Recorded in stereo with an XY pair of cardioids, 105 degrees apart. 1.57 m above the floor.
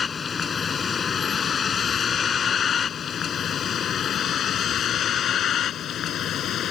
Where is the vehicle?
40° left; by 6.7 s 65° left.